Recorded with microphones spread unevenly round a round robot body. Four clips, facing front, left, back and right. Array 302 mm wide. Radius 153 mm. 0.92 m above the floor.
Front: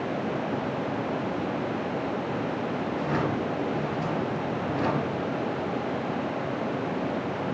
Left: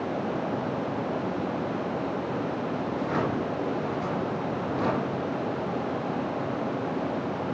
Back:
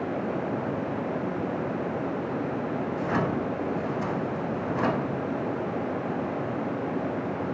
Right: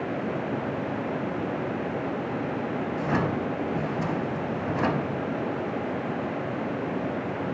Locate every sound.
2.9 s a drawer: 80° right, 1.8 m